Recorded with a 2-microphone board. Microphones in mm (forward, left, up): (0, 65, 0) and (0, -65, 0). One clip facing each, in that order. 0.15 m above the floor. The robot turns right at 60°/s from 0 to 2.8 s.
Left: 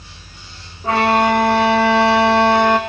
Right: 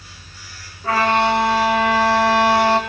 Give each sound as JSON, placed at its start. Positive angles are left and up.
{"t": 0.8, "sound": "a violin", "azimuth_deg": 20, "distance_m": 4.0}